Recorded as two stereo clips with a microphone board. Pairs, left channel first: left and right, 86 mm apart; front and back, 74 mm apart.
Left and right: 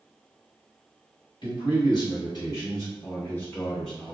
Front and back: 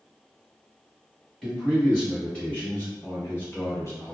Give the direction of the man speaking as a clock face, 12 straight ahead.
9 o'clock.